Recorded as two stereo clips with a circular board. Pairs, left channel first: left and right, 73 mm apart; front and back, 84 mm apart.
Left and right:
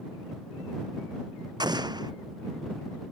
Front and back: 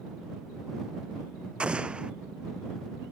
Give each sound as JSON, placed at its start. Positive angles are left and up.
{"t": 1.6, "sound": "an explosion", "azimuth_deg": -100}